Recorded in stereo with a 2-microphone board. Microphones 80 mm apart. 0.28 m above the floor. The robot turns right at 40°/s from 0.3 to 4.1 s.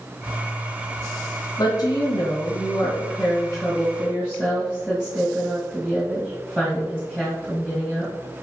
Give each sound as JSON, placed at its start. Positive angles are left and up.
{"t": 1.6, "sound": "a woman speaking", "azimuth_deg": 90, "distance_m": 2.0}